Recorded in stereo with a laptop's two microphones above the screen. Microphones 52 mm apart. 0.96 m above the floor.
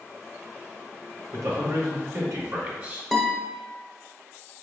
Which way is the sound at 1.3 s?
75° right (ahead or behind).